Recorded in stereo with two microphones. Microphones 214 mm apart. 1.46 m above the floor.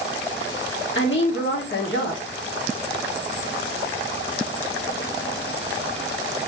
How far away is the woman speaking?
About 1.4 m.